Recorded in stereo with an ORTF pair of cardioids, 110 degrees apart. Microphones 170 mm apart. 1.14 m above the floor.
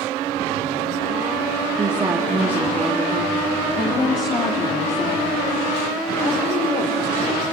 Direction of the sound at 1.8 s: 25° right.